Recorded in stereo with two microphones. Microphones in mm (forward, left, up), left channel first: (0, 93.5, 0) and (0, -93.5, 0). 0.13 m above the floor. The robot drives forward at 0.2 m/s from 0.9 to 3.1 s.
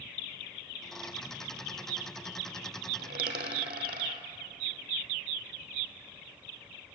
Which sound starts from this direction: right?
A dropped coin, at 3.0 s.